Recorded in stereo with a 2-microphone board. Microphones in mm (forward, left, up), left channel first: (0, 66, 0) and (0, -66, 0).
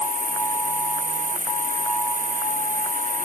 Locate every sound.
0.0 s an insect: 80° right